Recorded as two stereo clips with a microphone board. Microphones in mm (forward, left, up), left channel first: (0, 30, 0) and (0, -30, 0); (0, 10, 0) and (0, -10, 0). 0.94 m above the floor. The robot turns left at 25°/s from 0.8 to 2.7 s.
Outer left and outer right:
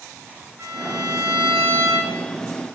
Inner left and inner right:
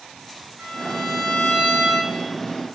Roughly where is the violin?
Ahead right.